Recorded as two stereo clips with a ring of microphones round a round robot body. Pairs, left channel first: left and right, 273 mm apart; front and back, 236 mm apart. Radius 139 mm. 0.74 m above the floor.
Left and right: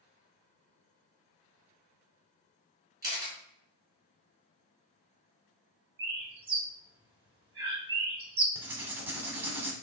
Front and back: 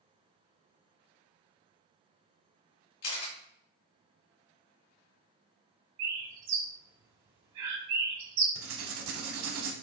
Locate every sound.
3.0 s a camera shutter: 15° right, 2.5 m
6.0 s a bird: 165° right, 1.5 m
8.6 s writing: 170° right, 0.8 m